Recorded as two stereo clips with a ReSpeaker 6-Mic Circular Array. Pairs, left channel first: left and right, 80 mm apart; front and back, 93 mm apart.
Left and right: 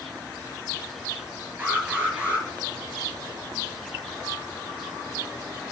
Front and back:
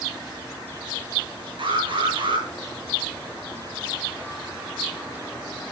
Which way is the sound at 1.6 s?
160° right.